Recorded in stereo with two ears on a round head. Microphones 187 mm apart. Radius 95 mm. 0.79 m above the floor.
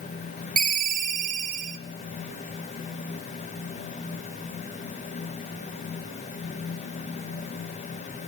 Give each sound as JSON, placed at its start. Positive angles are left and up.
{"t": 0.6, "sound": "a ringtone", "side_deg": -40, "distance_m": 1.8}